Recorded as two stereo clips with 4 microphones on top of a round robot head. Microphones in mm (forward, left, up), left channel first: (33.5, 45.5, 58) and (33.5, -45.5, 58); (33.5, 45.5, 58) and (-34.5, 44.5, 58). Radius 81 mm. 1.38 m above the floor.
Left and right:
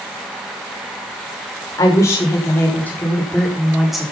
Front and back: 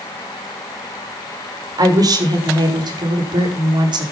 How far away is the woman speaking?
About 6 m.